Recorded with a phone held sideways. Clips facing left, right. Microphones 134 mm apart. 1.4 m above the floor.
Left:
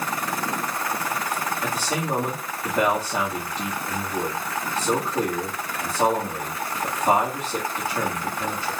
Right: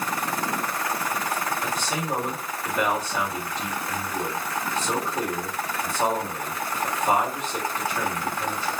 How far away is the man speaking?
About 2 m.